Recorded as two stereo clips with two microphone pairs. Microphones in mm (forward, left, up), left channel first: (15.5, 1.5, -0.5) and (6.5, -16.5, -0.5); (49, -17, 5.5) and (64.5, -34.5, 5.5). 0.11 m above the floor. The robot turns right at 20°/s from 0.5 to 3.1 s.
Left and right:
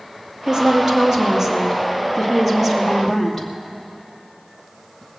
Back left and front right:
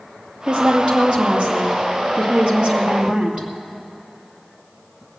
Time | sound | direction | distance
0.5 | a woman speaking | 70° right | 2.5 m